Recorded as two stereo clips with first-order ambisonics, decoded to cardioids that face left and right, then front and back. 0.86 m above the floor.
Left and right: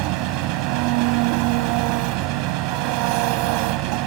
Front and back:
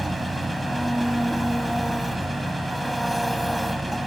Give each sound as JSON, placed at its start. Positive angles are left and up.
{"t": 0.0, "sound": "an engine running", "azimuth_deg": -90}